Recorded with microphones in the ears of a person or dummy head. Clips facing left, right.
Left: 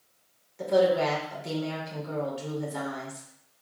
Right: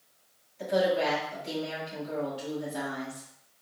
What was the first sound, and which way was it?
A woman speaking, 80° left.